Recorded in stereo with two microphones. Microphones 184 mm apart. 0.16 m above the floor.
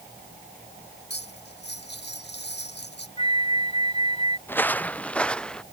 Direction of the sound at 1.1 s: 70° left (ahead or behind).